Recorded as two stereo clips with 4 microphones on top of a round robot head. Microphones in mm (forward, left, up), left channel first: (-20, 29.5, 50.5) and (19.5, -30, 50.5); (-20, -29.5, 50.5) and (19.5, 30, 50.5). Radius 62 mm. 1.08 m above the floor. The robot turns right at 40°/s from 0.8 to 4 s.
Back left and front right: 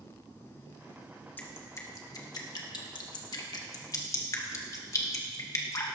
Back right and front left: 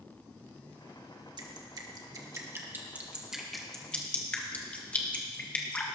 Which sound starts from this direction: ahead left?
Dripping, at 1.4 s.